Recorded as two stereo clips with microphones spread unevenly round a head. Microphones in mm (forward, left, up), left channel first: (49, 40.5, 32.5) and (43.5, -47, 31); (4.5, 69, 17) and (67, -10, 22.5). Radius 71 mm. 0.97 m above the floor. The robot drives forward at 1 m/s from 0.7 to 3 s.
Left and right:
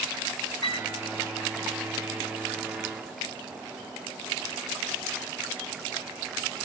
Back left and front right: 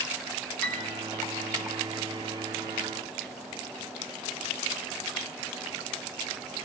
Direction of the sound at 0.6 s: 50° left.